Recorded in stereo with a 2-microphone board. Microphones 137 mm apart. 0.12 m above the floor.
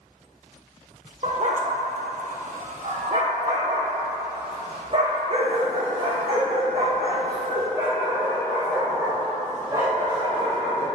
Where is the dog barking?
60° right (ahead or behind), 1.0 m; by 10.9 s 20° right (ahead or behind), 5 m.